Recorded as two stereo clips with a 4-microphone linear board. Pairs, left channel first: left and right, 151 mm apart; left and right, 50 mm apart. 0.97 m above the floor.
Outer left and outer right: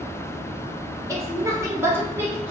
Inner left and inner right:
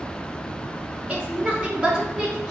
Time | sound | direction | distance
1.1 | a woman speaking | 20° right (ahead or behind) | 0.8 m